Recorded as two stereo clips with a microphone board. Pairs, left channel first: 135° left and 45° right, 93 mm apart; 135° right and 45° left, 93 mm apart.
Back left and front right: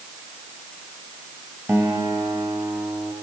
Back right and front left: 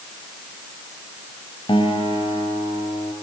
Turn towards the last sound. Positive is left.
turn(degrees=-105)